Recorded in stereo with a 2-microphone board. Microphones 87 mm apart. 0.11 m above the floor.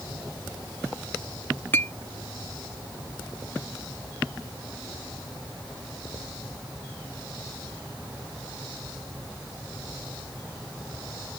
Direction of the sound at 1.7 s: 25° left (ahead or behind).